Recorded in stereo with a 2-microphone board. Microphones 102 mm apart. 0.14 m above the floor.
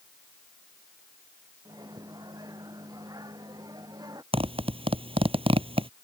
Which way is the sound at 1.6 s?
35° right (ahead or behind).